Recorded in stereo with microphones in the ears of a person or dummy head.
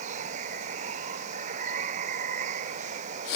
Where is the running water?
40° right (ahead or behind).